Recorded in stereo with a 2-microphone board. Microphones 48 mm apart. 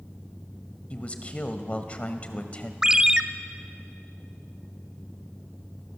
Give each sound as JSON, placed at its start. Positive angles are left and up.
{"t": 0.9, "sound": "a man speaking", "side_deg": 30, "distance_m": 1.3}
{"t": 2.8, "sound": "a ringtone", "side_deg": -15, "distance_m": 0.9}